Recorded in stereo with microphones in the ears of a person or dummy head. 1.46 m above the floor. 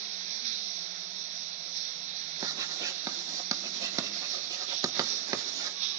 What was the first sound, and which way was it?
Running water, 40° right (ahead or behind).